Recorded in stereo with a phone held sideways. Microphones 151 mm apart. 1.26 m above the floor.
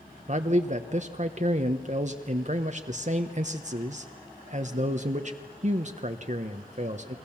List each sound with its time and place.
0.3 s a man speaking: 50° right (ahead or behind), 1.1 m